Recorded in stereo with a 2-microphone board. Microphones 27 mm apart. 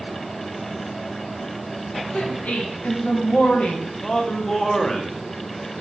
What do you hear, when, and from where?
2.1 s a woman speaking: 70° left (ahead or behind), 0.7 m
4.0 s a man speaking: 20° left (ahead or behind), 0.6 m